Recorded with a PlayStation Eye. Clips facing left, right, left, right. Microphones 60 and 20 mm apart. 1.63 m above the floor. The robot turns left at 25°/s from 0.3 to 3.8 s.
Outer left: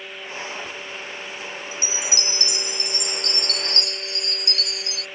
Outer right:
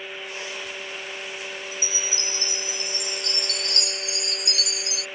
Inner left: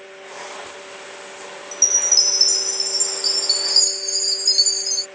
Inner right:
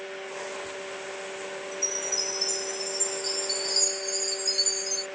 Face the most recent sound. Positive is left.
turn(degrees=40)